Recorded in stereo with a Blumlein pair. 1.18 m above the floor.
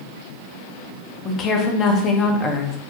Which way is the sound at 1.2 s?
25° left.